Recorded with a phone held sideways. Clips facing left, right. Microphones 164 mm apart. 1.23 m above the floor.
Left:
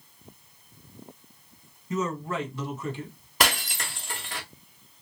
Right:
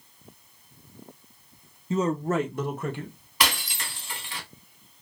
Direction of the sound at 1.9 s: 25° right (ahead or behind).